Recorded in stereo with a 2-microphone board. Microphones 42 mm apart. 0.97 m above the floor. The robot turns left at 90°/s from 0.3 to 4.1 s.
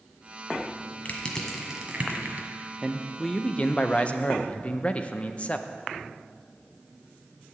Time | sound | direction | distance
1.1 | crushing | 35° left (ahead or behind) | 1.5 m
2.8 | a man speaking | 165° right | 0.5 m